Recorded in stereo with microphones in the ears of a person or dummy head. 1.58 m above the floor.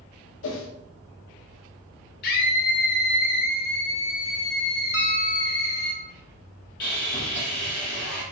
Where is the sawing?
40° left (ahead or behind), 1.0 m.